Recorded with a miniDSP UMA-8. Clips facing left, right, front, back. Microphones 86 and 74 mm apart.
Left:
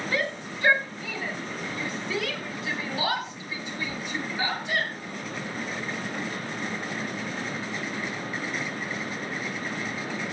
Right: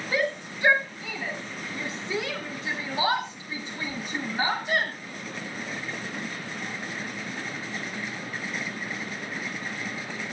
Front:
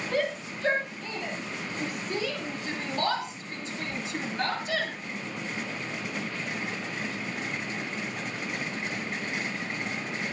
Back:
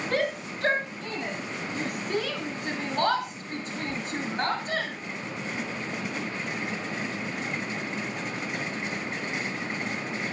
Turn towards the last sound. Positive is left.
turn(degrees=-135)